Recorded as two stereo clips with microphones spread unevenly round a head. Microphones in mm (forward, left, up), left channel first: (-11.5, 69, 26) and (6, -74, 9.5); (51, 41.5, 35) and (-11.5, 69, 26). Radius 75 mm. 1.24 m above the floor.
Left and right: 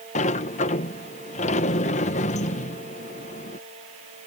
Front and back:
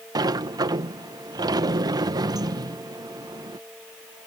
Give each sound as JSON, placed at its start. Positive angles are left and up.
{"t": 0.1, "sound": "a sliding door", "azimuth_deg": 140}